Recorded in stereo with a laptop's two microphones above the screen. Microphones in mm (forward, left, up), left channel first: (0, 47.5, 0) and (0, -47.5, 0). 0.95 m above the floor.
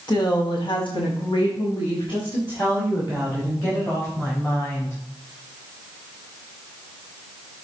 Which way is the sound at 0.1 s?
50° left (ahead or behind).